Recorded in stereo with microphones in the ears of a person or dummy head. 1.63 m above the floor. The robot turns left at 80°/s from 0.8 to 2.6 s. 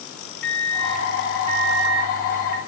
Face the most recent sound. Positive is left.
turn(degrees=-135)